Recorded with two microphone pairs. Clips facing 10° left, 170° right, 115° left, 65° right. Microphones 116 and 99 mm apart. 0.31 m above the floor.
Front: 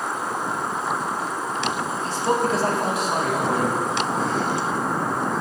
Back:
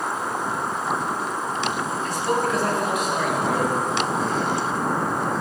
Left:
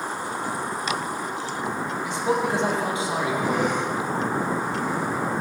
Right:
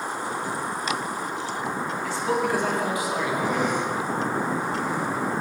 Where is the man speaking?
50° left, 1.6 m; by 3.8 s 60° left, 3 m.